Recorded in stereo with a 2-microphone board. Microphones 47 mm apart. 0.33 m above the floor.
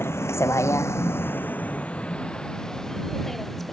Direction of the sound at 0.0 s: 60° left (ahead or behind).